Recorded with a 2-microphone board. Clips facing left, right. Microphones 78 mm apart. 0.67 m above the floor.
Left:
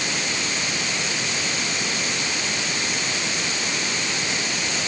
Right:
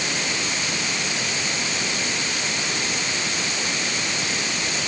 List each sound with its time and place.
Only background noise.